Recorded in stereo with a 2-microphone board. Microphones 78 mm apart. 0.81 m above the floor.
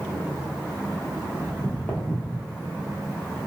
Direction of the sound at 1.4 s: 5° left (ahead or behind).